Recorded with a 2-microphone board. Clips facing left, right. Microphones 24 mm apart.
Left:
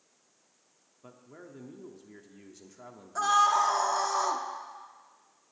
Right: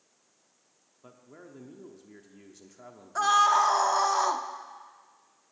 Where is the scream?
20° right (ahead or behind), 0.6 m.